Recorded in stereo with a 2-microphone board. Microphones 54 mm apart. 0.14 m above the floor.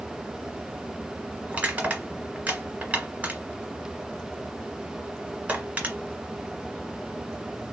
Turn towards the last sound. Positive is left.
turn(degrees=-25)  # may be behind; listen again after turning